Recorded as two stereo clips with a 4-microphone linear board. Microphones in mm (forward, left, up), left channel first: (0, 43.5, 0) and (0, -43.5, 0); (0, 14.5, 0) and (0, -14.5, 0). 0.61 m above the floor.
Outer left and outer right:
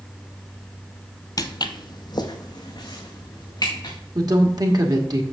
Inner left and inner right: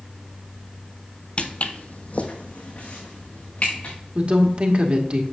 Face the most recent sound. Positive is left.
turn(degrees=-50)  # may be behind; listen again after turning